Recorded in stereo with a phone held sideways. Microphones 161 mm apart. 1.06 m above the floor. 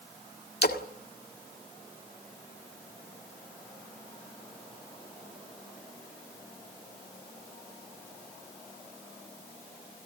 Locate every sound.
0.6 s a splash: 80° left, 1.6 m